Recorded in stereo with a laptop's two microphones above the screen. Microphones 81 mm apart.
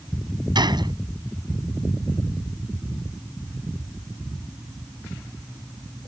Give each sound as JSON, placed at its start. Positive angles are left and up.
{"t": 0.6, "sound": "a gunshot", "side_deg": -65}